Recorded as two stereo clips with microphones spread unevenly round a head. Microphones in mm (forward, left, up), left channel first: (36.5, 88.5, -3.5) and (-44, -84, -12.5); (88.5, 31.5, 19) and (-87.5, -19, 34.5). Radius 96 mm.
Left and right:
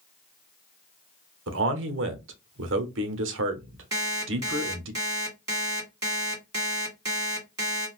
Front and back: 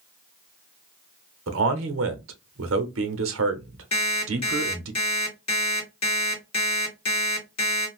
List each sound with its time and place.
1.5 s a man speaking: 140° right, 0.9 m
3.9 s an alarm clock: 45° right, 1.8 m